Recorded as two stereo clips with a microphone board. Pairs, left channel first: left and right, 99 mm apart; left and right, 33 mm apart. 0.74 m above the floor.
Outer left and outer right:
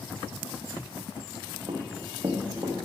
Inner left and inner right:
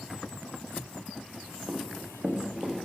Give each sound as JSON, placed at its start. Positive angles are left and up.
{"t": 1.7, "sound": "running footsteps", "side_deg": -55, "distance_m": 1.7}